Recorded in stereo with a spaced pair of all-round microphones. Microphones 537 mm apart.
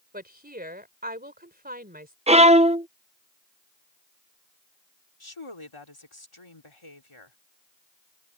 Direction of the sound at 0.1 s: 15° right (ahead or behind).